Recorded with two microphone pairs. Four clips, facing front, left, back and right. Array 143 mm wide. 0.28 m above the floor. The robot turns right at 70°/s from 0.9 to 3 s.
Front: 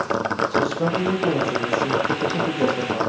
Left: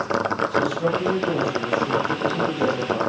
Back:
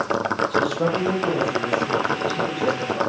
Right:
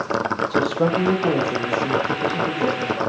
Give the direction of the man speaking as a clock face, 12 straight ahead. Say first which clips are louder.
Right 2 dB, even; 3 o'clock.